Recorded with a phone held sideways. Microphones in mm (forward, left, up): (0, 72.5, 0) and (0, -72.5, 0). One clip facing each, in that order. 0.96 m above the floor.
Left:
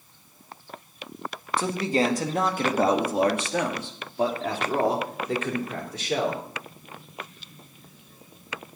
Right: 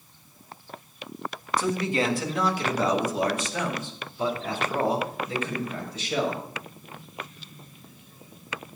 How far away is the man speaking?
About 1.6 m.